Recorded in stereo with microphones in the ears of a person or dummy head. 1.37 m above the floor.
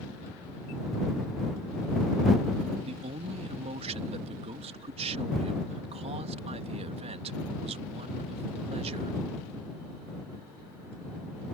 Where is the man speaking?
30° right (ahead or behind).